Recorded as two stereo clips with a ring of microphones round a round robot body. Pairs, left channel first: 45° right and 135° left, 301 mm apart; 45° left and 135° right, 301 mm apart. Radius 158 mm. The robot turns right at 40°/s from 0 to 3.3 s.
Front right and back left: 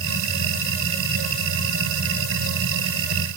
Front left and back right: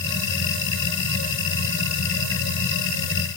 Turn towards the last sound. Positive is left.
No sound to turn to.